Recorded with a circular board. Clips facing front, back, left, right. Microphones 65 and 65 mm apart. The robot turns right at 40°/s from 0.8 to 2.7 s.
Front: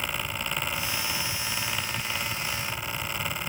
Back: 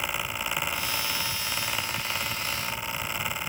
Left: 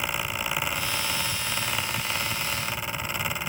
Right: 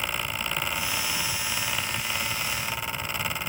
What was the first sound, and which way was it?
Only background noise.